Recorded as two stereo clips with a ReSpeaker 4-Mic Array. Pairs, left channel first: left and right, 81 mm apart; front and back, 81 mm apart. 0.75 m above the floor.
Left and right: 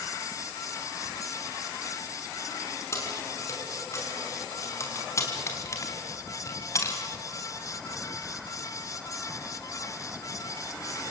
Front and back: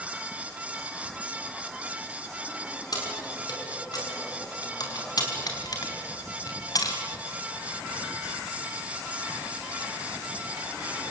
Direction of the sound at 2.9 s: 35° left.